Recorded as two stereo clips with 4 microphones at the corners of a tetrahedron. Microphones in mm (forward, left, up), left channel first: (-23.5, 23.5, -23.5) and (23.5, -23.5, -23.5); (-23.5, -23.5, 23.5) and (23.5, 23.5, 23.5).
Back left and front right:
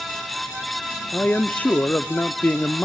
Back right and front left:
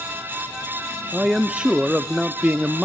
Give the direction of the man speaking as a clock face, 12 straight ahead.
8 o'clock.